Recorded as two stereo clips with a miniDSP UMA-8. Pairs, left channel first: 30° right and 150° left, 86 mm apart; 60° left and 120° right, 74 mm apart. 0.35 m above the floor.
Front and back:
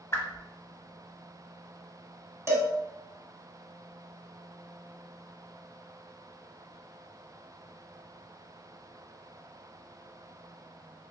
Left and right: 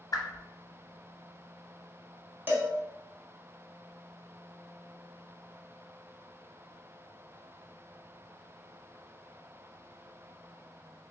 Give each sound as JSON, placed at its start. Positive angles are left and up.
{"t": 0.1, "sound": "a whoosh", "azimuth_deg": 30, "distance_m": 0.6}
{"t": 2.5, "sound": "a cowbell", "azimuth_deg": -170, "distance_m": 0.9}